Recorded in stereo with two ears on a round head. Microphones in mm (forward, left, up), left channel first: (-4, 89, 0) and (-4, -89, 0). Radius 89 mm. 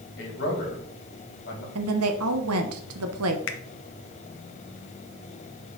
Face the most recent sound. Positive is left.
turn(degrees=70)  # may be behind; listen again after turning